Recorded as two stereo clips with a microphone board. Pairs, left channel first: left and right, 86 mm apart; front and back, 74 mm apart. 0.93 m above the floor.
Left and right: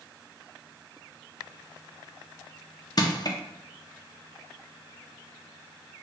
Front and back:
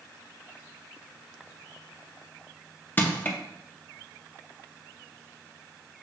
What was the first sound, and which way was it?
Crushing, 60° left.